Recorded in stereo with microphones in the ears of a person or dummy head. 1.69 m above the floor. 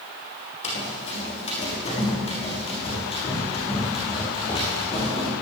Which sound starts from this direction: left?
Running footsteps, at 0.6 s.